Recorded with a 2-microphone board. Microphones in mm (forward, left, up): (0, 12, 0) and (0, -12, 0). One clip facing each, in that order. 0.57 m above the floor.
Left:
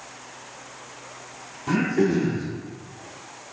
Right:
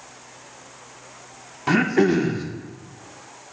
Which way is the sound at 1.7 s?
50° right (ahead or behind).